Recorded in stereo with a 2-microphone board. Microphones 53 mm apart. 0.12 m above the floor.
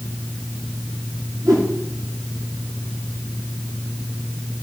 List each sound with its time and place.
1.4 s a whoosh: 65° right (ahead or behind), 3 m